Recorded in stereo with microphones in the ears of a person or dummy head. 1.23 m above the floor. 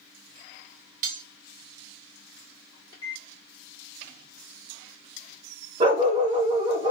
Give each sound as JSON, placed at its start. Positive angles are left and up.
{"t": 1.0, "sound": "cutlery clinking", "side_deg": -45, "distance_m": 0.6}
{"t": 2.9, "sound": "a microwave", "side_deg": 25, "distance_m": 2.0}
{"t": 5.8, "sound": "a dog barking", "side_deg": -25, "distance_m": 1.7}